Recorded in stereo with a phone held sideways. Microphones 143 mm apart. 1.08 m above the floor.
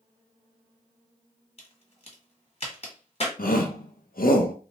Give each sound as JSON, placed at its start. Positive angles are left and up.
{"t": 1.6, "sound": "a crack", "side_deg": 45, "distance_m": 1.4}
{"t": 3.4, "sound": "a shout", "side_deg": 85, "distance_m": 0.6}